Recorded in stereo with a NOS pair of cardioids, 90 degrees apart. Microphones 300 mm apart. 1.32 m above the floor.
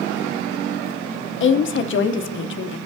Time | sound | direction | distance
1.4 | a woman speaking | 40° left | 0.8 m